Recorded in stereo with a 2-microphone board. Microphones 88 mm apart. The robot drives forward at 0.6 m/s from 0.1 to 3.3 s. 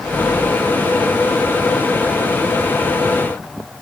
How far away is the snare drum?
No snare drum in this recording.